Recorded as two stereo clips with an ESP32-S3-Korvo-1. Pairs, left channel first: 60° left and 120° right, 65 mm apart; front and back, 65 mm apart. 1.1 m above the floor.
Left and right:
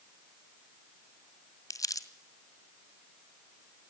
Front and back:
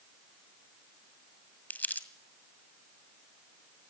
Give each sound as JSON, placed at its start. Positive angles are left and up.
{"t": 1.7, "sound": "crumpling", "azimuth_deg": 60, "distance_m": 1.8}